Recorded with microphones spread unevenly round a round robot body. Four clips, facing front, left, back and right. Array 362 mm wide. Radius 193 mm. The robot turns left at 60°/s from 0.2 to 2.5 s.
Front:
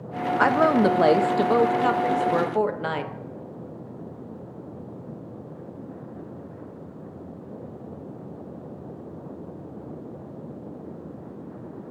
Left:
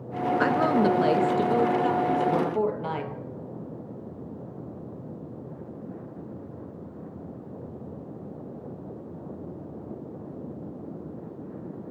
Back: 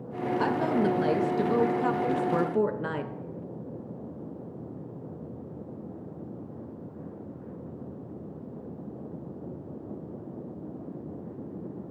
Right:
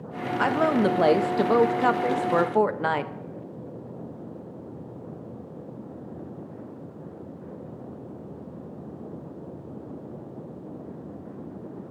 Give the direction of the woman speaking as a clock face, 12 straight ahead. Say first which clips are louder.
Right 1 dB, front 8 dB; 12 o'clock.